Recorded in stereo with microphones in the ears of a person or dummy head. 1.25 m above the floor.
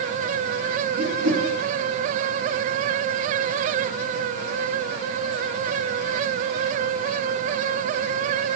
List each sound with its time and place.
1.0 s a whoosh: 75° right (ahead or behind), 1.2 m